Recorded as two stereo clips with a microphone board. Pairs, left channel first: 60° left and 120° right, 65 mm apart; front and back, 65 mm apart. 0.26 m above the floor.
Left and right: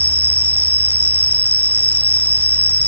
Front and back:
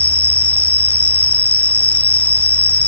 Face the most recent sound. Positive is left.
turn(degrees=125)